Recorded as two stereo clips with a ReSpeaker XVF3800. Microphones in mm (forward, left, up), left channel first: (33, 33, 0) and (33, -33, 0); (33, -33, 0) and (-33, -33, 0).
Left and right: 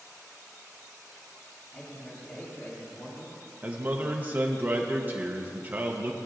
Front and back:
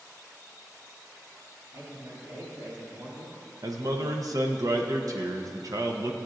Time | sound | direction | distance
1.7 | a man speaking | 150° left | 2.5 m
3.6 | a man speaking | 145° right | 0.7 m